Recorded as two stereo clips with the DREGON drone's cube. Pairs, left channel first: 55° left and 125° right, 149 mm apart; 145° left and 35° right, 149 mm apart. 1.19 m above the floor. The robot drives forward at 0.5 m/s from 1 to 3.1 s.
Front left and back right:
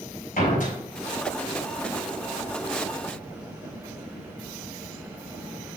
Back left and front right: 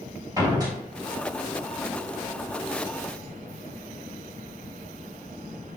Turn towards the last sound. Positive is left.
turn(degrees=40)